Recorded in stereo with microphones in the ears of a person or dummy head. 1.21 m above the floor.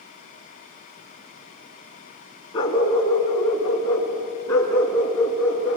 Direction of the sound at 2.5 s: 25° left (ahead or behind).